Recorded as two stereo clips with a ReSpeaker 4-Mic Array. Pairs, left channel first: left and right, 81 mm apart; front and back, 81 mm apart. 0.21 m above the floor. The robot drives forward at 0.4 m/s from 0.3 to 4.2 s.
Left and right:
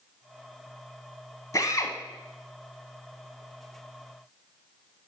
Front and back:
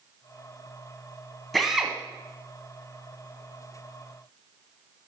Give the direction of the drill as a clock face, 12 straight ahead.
9 o'clock.